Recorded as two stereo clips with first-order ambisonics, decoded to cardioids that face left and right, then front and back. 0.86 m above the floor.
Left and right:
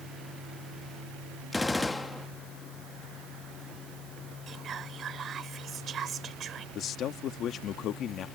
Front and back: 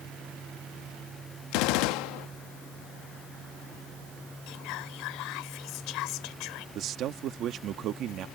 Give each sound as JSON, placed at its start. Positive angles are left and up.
{"t": 1.5, "sound": "a gunshot", "azimuth_deg": 10}
{"t": 4.5, "sound": "whispering", "azimuth_deg": -25}
{"t": 6.8, "sound": "a man speaking", "azimuth_deg": 135}